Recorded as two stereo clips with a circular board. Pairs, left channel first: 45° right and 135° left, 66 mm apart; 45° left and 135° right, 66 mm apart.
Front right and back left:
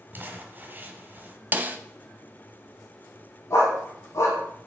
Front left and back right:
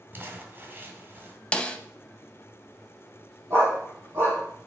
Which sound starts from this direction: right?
A dog barking, at 3.5 s.